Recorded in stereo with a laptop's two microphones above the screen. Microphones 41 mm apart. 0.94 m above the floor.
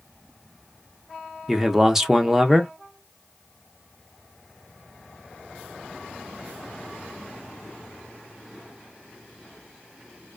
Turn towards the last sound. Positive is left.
turn(degrees=-10)  # may be behind; listen again after turning